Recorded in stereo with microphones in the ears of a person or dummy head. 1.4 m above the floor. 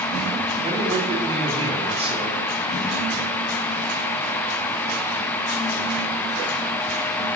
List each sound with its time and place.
0.6 s a man speaking: 25° right (ahead or behind), 3.5 m